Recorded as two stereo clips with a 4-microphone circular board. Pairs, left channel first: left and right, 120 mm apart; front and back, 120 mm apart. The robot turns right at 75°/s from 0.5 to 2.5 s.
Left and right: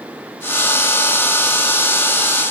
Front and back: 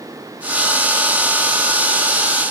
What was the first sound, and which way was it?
Only background noise.